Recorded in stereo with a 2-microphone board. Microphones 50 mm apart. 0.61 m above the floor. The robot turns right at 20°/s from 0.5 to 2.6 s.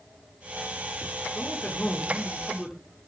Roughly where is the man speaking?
Left.